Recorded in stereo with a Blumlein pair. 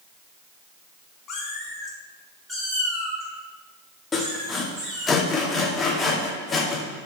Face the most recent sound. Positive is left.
turn(degrees=15)